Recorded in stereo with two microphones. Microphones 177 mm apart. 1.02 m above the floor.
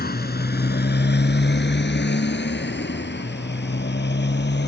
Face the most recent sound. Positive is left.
turn(degrees=75)  # may be behind; listen again after turning